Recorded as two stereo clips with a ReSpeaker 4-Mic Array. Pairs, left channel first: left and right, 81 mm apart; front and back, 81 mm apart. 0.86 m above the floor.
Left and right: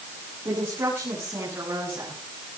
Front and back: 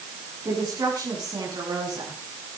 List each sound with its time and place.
0.5 s a woman speaking: 135° right, 10 m; by 2.2 s 145° right, 9.5 m